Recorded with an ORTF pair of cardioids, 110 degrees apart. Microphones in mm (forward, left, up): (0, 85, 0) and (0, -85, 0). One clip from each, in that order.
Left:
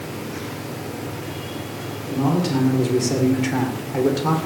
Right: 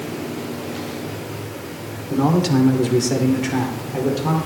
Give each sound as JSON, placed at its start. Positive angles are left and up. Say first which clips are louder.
{"t": 2.1, "sound": "a man speaking", "louder": "right 3 dB", "azimuth_deg": -40, "distance_m": 3.0}